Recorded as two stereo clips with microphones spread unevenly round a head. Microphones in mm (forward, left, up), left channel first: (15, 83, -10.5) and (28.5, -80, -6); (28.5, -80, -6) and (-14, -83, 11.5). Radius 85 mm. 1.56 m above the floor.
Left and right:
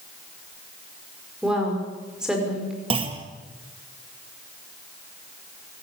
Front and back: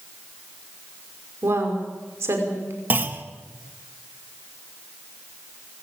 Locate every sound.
1.4 s a woman speaking: 170° right, 5.5 m
2.9 s a clunk: 145° right, 1.7 m